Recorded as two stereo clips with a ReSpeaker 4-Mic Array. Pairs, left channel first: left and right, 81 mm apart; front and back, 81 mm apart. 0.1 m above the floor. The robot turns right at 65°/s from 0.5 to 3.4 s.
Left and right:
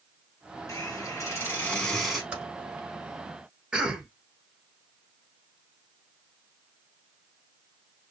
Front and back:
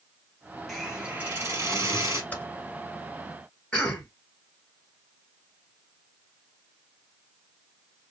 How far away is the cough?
About 1.1 m.